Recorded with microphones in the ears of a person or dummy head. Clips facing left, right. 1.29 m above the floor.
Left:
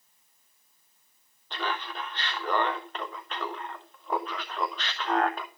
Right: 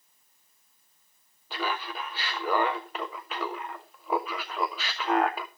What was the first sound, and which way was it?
Laughter, 5° right (ahead or behind).